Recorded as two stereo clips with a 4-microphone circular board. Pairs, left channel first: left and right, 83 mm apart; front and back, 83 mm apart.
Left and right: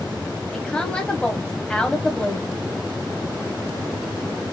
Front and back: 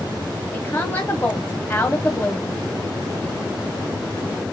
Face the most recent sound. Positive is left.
turn(degrees=25)